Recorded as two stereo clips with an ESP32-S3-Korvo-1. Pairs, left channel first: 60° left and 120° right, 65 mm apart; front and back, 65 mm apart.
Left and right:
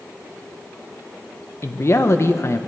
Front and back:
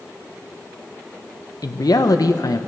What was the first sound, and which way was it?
A man speaking, 15° left.